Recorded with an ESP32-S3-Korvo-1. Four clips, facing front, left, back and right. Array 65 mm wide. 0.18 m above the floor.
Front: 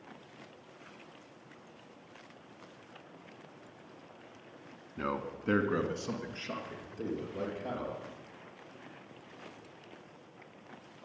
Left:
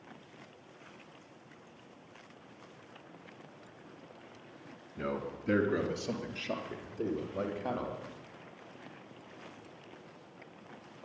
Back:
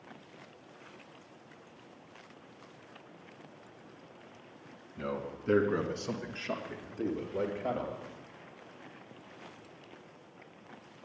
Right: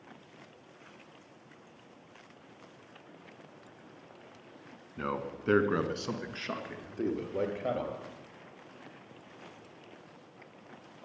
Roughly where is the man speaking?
Ahead right.